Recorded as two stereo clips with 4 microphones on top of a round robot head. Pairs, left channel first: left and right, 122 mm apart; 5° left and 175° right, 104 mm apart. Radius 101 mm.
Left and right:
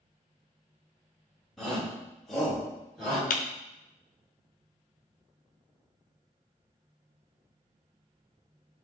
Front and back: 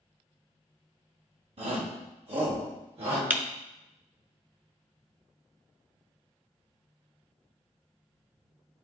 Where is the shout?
Straight behind, 2.5 m.